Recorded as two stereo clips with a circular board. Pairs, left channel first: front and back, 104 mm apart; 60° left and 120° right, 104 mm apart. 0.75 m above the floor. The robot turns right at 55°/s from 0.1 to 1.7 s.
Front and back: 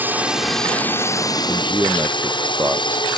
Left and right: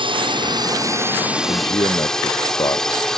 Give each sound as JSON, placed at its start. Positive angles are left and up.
{"t": 0.0, "sound": "a drone", "azimuth_deg": -110}
{"t": 1.5, "sound": "a man speaking", "azimuth_deg": 95}